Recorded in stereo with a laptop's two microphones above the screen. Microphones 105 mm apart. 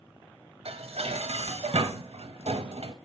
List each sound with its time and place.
0.7 s dishes clattering: 80° right, 0.6 m